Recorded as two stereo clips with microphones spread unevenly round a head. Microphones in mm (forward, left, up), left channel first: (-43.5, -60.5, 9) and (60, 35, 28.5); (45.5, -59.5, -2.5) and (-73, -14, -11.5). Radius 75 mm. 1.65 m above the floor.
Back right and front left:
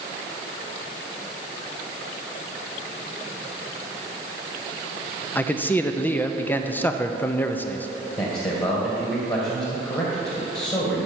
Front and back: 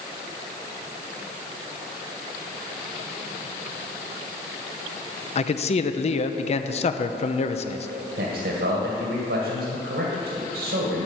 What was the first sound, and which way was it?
A man speaking, 60° right.